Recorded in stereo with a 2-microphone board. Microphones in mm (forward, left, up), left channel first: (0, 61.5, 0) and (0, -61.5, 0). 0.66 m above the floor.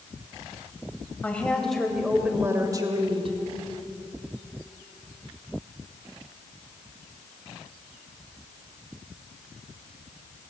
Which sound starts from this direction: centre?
A woman speaking, at 1.2 s.